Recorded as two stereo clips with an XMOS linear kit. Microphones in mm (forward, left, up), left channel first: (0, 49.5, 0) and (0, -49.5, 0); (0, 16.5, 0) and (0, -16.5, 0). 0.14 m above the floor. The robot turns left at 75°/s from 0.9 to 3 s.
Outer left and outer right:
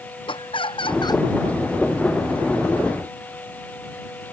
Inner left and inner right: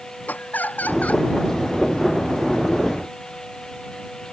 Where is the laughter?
60° left (ahead or behind); by 1.3 s 30° left (ahead or behind).